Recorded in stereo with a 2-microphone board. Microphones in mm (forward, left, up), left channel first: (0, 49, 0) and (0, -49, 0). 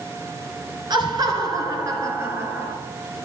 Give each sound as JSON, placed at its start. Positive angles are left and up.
{"t": 0.9, "sound": "laughter", "side_deg": -50, "distance_m": 2.0}